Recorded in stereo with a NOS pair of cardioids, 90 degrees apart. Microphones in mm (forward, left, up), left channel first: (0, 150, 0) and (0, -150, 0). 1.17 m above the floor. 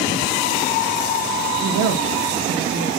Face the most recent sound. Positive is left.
turn(degrees=-70)